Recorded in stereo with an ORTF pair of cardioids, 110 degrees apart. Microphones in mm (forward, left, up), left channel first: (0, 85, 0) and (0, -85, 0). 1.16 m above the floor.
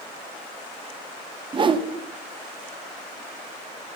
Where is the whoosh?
30° right, 0.8 m.